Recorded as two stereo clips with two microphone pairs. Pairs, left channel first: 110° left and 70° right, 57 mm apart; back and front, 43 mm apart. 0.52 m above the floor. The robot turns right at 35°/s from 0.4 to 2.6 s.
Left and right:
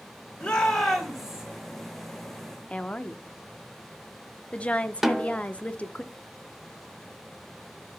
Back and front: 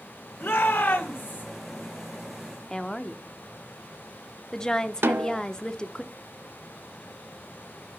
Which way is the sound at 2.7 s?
135° left.